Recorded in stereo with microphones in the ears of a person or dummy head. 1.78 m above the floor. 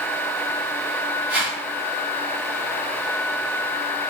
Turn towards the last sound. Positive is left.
turn(degrees=-5)  # may be behind; listen again after turning